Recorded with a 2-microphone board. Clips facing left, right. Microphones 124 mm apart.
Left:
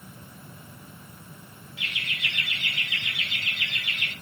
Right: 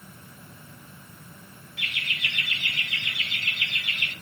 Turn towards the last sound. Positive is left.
turn(degrees=-45)  # may be behind; listen again after turning